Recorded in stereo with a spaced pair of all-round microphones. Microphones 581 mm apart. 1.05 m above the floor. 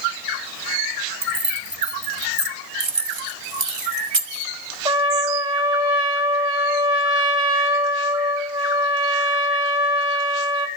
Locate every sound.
1.2 s keys jangling: 50° right (ahead or behind), 2.5 m
2.8 s keys jangling: 50° right (ahead or behind), 1.0 m
4.8 s a trumpet: 10° right (ahead or behind), 4 m